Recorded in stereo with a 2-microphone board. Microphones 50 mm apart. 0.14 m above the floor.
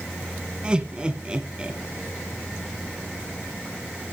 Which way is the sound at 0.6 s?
20° right (ahead or behind).